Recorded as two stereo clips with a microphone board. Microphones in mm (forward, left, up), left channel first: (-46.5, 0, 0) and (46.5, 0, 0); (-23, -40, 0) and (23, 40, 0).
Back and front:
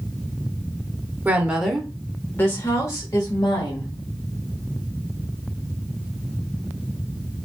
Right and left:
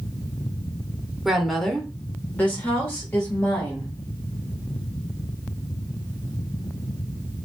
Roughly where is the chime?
No chime in this recording.